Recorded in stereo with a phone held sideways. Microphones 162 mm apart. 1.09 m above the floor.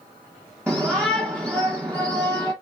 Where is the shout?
10° right (ahead or behind), 1.1 m.